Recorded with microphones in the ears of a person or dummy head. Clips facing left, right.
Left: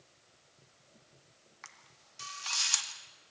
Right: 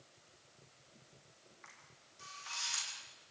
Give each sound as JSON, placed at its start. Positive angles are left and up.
{"t": 1.6, "sound": "a camera shutter", "side_deg": 80, "distance_m": 2.5}